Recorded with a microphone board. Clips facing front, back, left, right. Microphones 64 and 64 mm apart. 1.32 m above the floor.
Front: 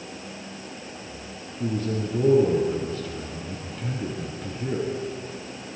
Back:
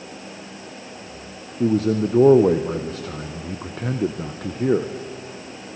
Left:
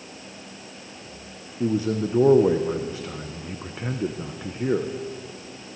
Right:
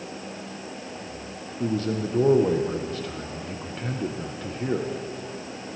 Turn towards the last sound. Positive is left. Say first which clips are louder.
# back 8 dB, left 3 dB
turn(degrees=165)